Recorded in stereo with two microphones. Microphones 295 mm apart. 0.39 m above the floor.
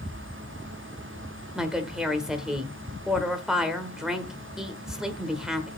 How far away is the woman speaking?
About 1.2 m.